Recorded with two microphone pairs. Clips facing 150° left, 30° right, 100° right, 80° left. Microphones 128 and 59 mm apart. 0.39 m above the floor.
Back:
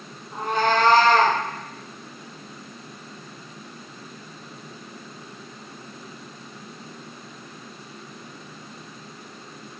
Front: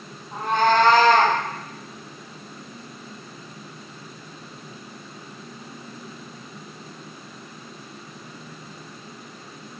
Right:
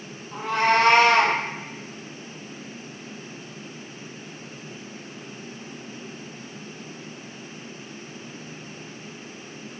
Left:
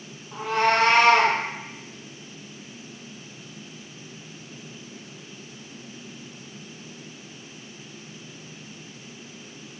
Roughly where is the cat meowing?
Ahead.